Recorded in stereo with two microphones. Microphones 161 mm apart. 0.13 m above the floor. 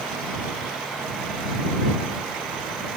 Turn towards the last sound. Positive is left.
No sound to turn to.